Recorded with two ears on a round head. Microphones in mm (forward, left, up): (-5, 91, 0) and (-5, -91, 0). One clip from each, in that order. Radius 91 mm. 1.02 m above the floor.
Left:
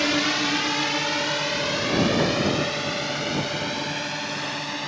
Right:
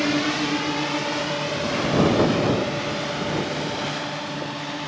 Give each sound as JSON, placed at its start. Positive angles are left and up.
{"t": 0.0, "sound": "a drone", "side_deg": 35}